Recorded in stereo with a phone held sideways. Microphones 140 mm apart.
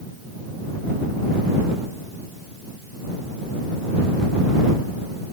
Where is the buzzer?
I don't hear a buzzer.